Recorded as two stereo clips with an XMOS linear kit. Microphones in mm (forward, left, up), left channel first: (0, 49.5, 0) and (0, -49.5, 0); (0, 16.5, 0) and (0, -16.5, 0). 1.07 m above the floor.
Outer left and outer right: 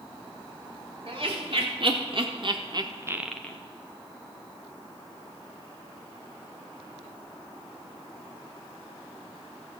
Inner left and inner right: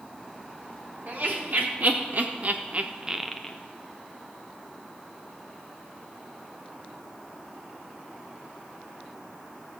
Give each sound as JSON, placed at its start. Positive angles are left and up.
{"t": 1.1, "sound": "laughter", "side_deg": -55, "distance_m": 3.5}